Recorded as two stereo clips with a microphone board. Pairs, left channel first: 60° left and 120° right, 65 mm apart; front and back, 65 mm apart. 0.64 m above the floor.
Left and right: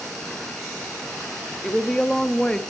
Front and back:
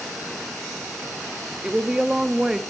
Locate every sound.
1.6 s a woman speaking: 115° left, 0.6 m